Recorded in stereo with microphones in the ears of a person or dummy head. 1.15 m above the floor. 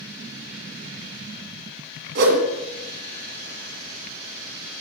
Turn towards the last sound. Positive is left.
turn(degrees=-55)  # may be behind; listen again after turning